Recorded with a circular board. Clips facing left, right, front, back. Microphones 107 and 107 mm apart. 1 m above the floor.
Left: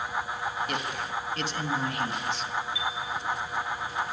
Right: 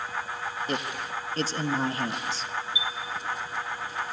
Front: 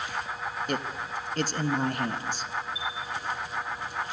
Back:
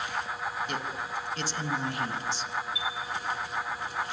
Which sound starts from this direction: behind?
A chime, at 2.8 s.